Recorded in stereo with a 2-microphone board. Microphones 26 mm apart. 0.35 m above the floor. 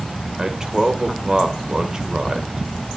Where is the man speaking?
20° right (ahead or behind), 1.2 m.